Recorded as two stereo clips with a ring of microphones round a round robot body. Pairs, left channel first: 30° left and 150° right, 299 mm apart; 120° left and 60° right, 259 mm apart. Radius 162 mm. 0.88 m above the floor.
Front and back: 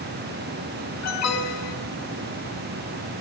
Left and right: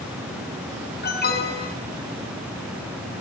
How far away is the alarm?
About 7.5 m.